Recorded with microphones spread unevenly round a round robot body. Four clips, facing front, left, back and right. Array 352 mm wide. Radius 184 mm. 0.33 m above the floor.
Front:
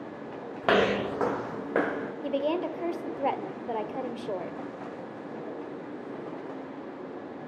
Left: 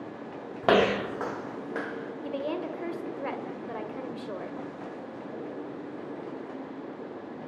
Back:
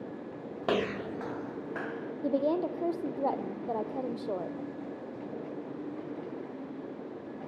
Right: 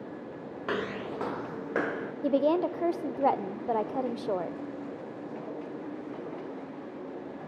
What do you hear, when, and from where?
0.6 s footsteps: 80° left, 0.6 m; by 2.1 s 30° right, 1.8 m
2.2 s a woman speaking: 90° right, 1.4 m